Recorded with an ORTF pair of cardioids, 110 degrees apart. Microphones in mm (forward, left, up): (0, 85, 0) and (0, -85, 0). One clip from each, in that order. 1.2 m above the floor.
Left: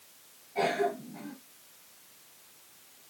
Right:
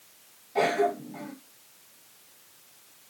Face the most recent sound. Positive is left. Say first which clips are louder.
# right 4 dB
turn(degrees=-65)